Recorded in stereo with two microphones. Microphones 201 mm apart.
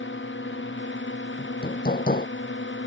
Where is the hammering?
50° left (ahead or behind).